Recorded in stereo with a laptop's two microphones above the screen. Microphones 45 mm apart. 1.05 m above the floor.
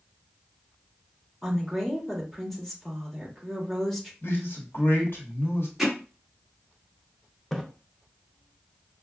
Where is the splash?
5° left (ahead or behind), 0.6 m.